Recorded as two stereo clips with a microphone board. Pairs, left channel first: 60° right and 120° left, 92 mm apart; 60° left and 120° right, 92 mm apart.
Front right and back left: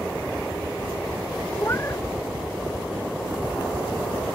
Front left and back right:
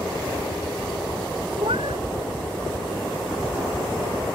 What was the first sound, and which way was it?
A cat meowing, 125° right.